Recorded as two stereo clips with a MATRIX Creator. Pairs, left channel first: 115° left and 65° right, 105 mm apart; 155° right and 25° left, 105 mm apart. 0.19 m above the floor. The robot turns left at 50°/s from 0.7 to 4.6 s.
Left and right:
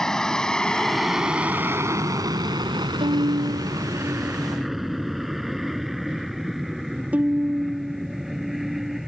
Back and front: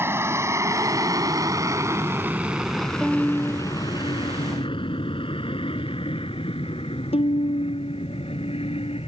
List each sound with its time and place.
0.0 s an aircraft: 35° left; by 9.1 s 155° right
3.0 s a violin: 65° right; by 9.0 s 145° right